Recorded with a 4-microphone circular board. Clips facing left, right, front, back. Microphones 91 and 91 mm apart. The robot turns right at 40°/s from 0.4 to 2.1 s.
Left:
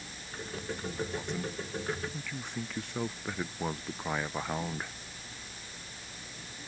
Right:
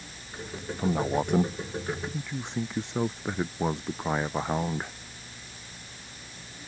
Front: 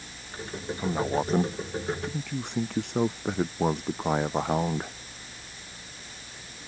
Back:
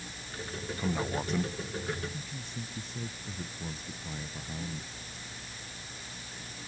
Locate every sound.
0.8 s a man speaking: 75° right; by 4.9 s 20° right